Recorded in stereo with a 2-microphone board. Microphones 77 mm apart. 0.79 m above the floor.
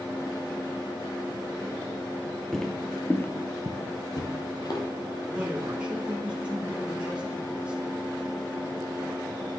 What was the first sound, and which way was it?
Footsteps, 5° left (ahead or behind).